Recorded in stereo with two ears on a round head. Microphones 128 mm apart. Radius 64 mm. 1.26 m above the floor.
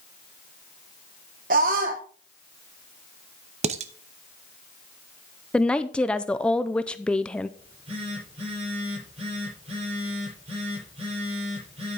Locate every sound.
1.5 s a scream: 65° right (ahead or behind), 1.1 m
3.6 s dishes clattering: 50° right (ahead or behind), 0.7 m
5.5 s a woman speaking: 5° left (ahead or behind), 0.5 m
7.6 s a phone buzzing: 40° right (ahead or behind), 6.5 m